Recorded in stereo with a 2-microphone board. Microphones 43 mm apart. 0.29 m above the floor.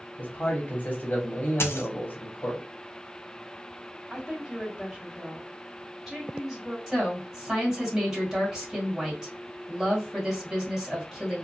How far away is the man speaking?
About 1.3 m.